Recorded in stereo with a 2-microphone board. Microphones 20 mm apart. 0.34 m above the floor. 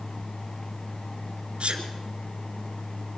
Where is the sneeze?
70° right (ahead or behind), 4.5 m.